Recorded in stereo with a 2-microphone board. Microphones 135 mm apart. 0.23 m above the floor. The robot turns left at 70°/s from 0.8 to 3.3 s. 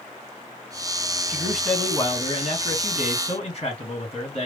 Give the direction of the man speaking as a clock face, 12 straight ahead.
5 o'clock.